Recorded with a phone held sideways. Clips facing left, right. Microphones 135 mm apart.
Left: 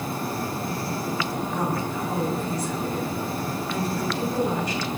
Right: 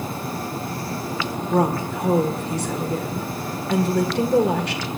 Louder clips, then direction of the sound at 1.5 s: Right 10 dB; 75° right (ahead or behind).